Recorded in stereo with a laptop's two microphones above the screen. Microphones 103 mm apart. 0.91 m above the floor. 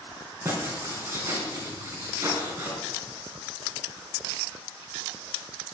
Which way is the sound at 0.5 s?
25° right (ahead or behind).